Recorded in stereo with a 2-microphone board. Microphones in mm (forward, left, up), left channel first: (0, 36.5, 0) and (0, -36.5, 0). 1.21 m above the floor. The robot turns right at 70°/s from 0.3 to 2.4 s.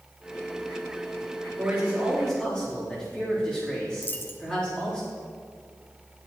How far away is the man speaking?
About 3 m.